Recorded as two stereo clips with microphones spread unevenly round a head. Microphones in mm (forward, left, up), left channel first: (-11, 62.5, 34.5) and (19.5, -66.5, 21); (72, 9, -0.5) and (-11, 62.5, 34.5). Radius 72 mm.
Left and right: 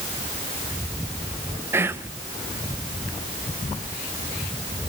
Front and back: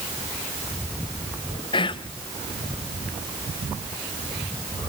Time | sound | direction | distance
1.7 | whispering | 5° right | 0.6 m